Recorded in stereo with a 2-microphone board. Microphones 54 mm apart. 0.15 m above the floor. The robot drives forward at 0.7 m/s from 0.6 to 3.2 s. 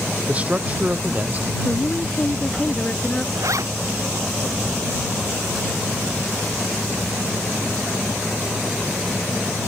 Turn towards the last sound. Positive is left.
turn(degrees=-70)  # may be behind; listen again after turning